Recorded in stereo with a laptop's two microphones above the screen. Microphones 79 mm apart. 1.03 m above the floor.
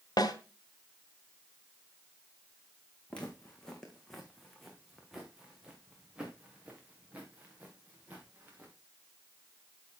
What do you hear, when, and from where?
0.2 s a snare drum: 55° left (ahead or behind), 1.9 m
3.1 s footsteps: 15° left (ahead or behind), 3 m; by 8.7 s 25° right (ahead or behind), 5 m